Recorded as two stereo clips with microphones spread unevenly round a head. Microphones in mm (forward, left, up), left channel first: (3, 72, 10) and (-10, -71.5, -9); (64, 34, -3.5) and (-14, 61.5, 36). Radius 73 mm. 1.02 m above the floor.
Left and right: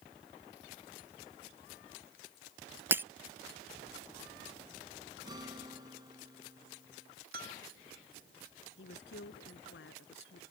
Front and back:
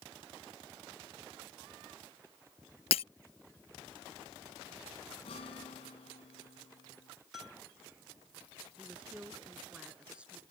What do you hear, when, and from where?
2.9 s breaking glass: 15° right
5.2 s a guitar: 30° right
7.3 s a bell: 105° right
8.8 s a woman speaking: 85° left